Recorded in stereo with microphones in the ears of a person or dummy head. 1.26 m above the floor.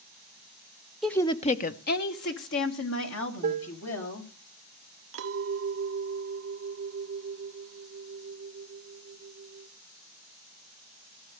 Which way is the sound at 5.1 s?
75° right (ahead or behind).